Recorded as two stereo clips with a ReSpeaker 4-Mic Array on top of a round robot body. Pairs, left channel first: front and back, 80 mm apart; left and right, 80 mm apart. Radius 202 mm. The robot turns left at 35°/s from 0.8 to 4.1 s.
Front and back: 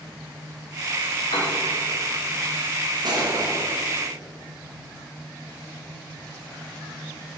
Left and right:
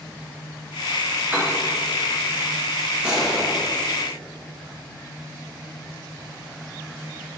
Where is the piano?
15° right, 1.3 m; by 1.5 s 20° right, 1.3 m.